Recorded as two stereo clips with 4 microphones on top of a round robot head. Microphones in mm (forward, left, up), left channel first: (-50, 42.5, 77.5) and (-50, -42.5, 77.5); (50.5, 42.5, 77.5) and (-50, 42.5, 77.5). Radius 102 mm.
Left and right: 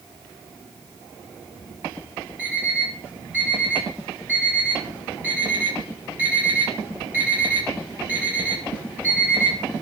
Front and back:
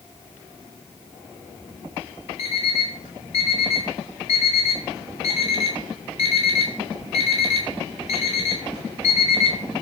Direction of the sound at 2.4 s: 20° right.